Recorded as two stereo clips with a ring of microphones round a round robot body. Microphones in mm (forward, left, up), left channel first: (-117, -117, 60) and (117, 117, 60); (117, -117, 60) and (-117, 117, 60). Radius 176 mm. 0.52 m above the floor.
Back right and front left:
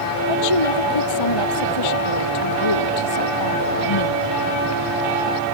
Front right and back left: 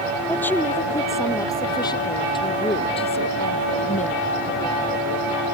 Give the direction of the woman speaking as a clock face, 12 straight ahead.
4 o'clock.